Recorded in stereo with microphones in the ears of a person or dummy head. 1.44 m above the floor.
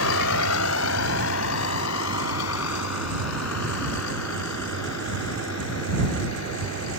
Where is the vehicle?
80° left; by 7.0 s 75° left (ahead or behind).